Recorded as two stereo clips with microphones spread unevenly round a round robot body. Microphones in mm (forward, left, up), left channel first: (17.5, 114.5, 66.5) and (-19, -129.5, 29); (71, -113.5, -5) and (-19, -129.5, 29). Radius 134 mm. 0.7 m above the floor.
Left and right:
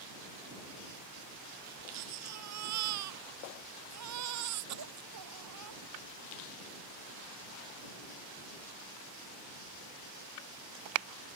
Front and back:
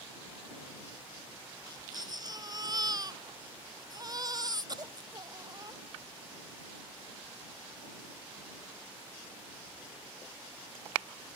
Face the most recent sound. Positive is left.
turn(degrees=-125)